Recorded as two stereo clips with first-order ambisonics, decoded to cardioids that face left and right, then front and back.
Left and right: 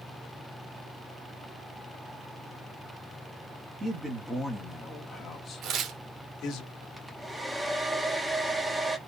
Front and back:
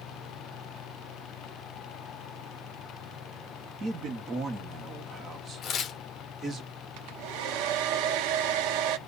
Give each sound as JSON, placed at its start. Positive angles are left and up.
{"t": 3.8, "sound": "a man speaking", "azimuth_deg": -150, "distance_m": 1.1}
{"t": 5.6, "sound": "tearing paper", "azimuth_deg": -50, "distance_m": 0.8}
{"t": 7.0, "sound": "a hair dryer", "azimuth_deg": -175, "distance_m": 0.7}